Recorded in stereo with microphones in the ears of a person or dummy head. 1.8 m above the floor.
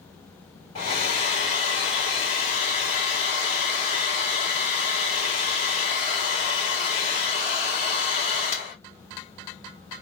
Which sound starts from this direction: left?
A hair dryer, at 0.8 s.